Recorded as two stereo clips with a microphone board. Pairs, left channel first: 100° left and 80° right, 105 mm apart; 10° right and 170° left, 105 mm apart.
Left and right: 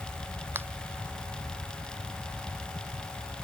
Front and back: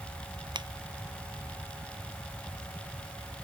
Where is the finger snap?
150° right.